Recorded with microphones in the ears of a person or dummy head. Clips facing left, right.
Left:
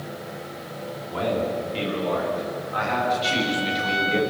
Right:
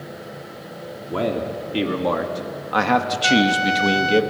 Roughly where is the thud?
I don't hear a thud.